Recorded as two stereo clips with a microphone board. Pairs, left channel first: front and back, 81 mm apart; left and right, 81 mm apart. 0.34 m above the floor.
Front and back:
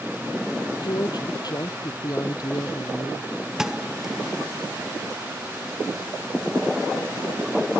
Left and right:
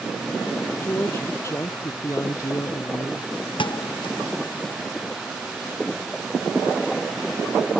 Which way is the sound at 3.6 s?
95° left.